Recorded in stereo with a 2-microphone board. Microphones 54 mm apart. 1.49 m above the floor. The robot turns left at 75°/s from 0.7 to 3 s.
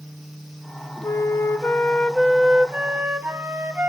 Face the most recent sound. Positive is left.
turn(degrees=-50)